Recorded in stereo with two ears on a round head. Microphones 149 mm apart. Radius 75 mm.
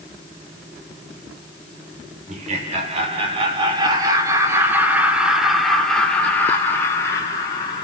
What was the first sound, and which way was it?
Laughter, 50° right (ahead or behind).